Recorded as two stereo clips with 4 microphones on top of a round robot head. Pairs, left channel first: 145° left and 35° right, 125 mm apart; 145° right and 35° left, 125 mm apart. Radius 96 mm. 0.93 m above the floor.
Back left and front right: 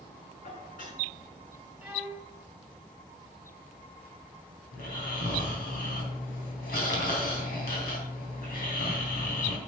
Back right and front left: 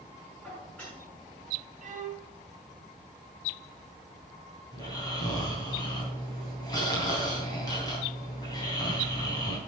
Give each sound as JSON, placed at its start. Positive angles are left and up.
{"t": 0.4, "sound": "dishes clattering", "azimuth_deg": 135, "distance_m": 6.5}
{"t": 1.8, "sound": "a violin", "azimuth_deg": 45, "distance_m": 2.0}
{"t": 4.7, "sound": "snoring", "azimuth_deg": 155, "distance_m": 3.5}